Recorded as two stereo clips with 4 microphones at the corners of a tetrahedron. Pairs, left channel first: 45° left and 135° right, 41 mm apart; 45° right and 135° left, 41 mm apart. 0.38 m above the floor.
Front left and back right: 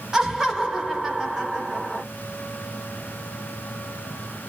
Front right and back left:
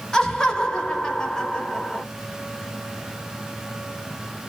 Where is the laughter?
85° right, 0.8 m.